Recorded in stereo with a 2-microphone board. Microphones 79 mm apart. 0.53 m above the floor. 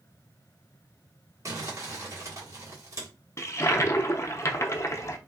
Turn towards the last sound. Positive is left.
turn(degrees=35)  # may be behind; listen again after turning